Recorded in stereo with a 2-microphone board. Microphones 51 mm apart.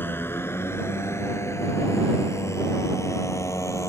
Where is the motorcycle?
45° left (ahead or behind); by 3.9 s 80° left.